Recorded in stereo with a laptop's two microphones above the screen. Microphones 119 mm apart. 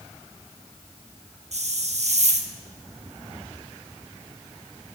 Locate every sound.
1.5 s a hiss: 60° right (ahead or behind), 0.8 m